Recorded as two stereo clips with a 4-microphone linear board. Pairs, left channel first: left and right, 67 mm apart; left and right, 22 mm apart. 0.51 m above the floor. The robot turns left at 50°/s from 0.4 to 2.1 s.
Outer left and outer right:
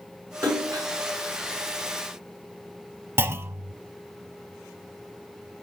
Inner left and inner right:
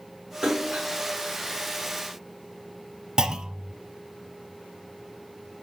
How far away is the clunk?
About 0.7 m.